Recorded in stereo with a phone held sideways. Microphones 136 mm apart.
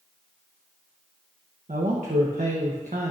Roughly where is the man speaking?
Right.